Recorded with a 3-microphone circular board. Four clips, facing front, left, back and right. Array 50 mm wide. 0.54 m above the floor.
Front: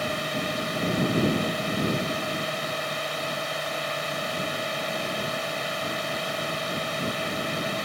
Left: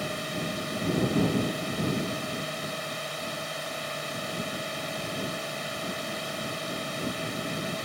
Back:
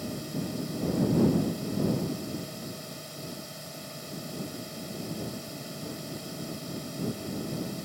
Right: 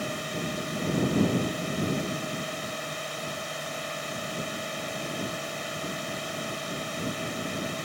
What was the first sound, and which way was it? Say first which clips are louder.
A drone: even, front 7 dB; 5° right.